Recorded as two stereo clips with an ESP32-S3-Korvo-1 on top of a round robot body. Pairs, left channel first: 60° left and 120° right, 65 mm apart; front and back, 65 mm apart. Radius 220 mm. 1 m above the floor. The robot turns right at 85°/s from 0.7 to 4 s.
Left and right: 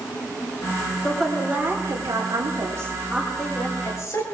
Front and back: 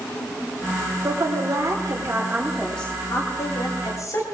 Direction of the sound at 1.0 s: 140° left.